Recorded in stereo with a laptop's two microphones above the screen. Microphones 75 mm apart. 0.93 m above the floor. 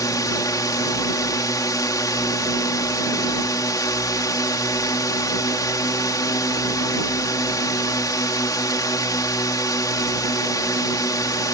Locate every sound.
0.0 s a drone: 50° left (ahead or behind)